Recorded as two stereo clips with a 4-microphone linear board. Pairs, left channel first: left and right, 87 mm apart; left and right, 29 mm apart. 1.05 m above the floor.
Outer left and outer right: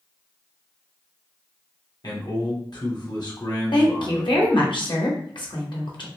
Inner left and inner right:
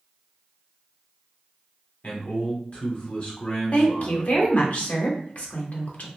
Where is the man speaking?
55° left (ahead or behind), 1.1 m.